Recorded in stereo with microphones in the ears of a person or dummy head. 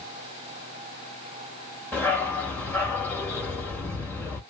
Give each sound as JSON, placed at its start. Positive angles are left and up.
{"t": 1.9, "sound": "a dog barking", "side_deg": 10, "distance_m": 1.8}